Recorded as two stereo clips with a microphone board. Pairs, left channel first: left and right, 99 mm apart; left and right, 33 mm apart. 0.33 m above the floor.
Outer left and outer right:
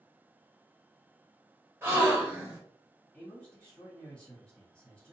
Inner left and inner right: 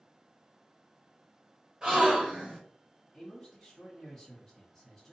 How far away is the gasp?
About 1.2 m.